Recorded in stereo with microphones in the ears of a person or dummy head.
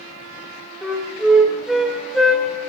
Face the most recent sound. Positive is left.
turn(degrees=-5)  # may be behind; listen again after turning